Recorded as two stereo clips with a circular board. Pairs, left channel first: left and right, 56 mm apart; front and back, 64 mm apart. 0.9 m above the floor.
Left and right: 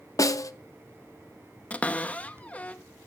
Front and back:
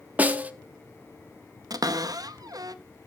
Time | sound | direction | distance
0.2 | a snare drum | 110° left | 0.7 m
1.7 | a cupboard door | 155° left | 0.6 m